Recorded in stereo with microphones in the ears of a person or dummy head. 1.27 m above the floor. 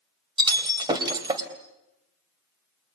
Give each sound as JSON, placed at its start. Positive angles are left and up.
{"t": 0.4, "sound": "breaking glass", "side_deg": -20, "distance_m": 2.5}